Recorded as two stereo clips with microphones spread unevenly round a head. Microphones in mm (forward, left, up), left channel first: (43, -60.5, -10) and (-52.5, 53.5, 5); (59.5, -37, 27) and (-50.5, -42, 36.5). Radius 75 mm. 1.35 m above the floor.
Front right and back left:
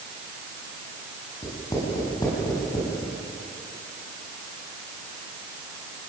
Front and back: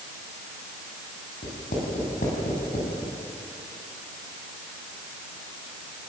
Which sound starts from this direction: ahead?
Writing, at 1.4 s.